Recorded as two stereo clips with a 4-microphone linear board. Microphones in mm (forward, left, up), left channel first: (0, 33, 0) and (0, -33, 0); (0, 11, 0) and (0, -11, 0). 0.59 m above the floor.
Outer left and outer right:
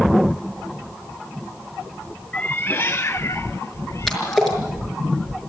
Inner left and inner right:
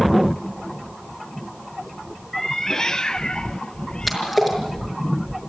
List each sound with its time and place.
2.3 s a cat meowing: 25° left (ahead or behind), 0.5 m; by 4.5 s 50° left (ahead or behind), 1.3 m
4.1 s a splash: 5° left (ahead or behind), 5.5 m